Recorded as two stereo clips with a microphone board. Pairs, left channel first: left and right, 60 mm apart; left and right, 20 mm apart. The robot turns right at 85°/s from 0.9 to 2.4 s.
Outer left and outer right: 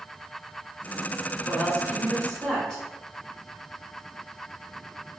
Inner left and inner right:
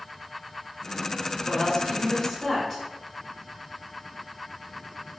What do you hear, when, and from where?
1.5 s a woman speaking: 85° left, 1.8 m; by 2.8 s 165° left, 1.8 m